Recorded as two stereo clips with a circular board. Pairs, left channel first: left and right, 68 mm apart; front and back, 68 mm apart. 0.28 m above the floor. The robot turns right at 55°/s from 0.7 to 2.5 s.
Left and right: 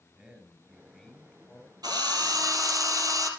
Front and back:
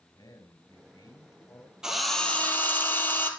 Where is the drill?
100° right, 3 m; by 3.3 s 60° right, 3 m.